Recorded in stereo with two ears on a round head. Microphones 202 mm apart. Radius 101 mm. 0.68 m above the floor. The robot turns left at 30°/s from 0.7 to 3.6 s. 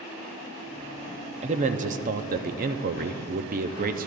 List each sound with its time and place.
1.4 s a man speaking: 45° right, 0.7 m; by 4.1 s 110° right, 0.7 m